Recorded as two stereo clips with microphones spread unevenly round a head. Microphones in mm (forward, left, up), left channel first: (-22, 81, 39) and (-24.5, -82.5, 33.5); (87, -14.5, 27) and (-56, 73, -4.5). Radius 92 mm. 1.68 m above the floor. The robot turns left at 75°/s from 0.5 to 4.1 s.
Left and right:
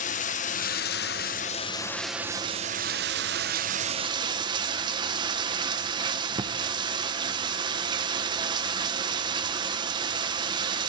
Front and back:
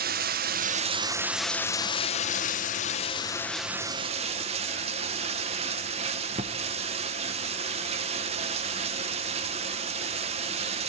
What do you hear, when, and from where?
0.0 s running water: 120° left, 0.9 m; by 10.9 s 150° right, 0.9 m